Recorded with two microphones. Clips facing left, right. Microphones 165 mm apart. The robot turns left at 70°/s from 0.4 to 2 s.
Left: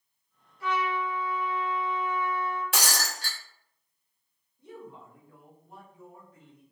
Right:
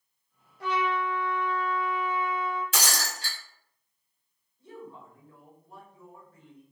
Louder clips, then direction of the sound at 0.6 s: Right 1 dB; 70° right.